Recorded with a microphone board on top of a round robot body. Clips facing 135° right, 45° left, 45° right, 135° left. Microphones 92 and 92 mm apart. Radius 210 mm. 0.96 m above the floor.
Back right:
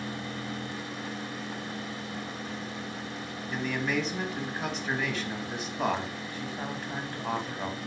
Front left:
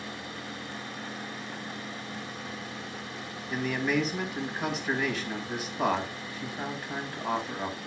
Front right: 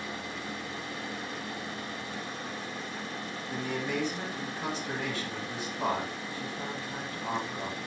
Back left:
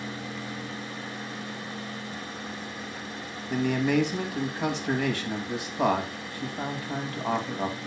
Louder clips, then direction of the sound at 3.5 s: Front left 2 dB, back left 9 dB; 135° left.